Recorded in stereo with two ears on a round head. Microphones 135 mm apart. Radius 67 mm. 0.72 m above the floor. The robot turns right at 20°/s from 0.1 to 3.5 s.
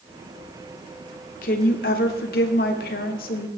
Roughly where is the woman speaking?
Ahead left.